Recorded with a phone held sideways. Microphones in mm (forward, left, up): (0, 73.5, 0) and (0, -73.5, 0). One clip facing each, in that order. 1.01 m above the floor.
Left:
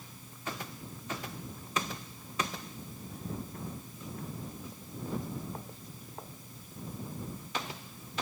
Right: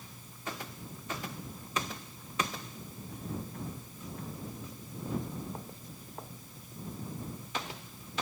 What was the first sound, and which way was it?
Only background noise.